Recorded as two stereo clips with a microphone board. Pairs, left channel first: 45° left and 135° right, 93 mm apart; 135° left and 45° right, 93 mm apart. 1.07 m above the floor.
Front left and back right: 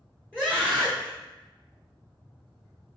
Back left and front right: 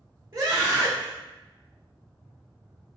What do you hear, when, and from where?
0.3 s a scream: 20° right, 0.8 m